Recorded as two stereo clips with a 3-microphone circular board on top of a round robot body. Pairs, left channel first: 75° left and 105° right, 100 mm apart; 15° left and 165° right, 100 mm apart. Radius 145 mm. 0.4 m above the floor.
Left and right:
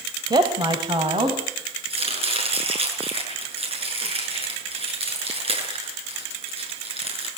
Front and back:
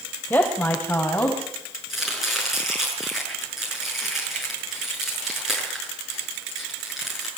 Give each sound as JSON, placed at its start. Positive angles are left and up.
{"t": 0.3, "sound": "a woman speaking", "azimuth_deg": -60, "distance_m": 2.0}
{"t": 1.9, "sound": "chopping", "azimuth_deg": -75, "distance_m": 7.0}